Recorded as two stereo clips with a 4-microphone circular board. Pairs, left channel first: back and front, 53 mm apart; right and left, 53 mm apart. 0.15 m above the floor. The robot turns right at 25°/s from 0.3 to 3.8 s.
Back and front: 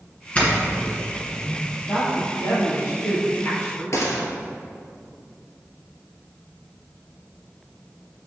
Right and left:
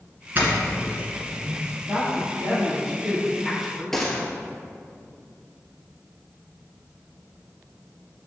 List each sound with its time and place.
0.3 s a doorbell: 125° left, 1.9 m; by 1.6 s 160° left, 1.9 m
1.9 s a woman speaking: 140° left, 2.5 m; by 3.8 s 175° right, 2.5 m
3.9 s a gunshot: 170° right, 1.8 m